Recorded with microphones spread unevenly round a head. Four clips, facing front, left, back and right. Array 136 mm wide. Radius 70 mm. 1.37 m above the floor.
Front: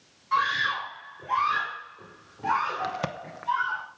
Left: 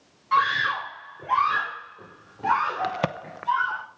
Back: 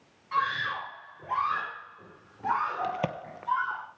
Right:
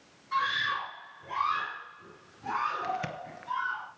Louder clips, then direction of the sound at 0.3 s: Left 8 dB, front 3 dB; 85° left.